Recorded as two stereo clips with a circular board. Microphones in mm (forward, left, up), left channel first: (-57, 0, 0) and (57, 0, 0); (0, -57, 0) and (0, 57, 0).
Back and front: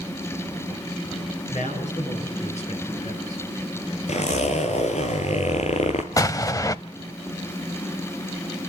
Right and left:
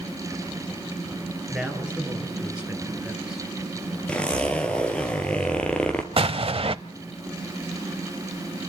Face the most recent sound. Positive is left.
turn(degrees=120)